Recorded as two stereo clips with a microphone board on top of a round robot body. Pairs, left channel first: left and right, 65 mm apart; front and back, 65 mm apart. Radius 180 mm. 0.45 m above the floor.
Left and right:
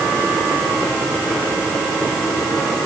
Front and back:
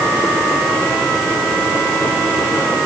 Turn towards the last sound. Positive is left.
No sound to turn to.